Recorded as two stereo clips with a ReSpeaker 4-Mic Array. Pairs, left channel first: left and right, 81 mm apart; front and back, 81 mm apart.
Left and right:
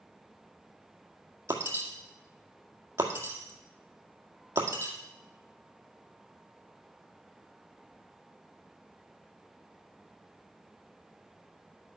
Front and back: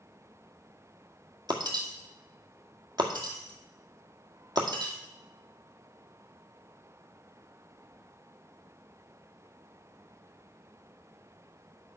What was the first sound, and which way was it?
Breaking glass, 145° right.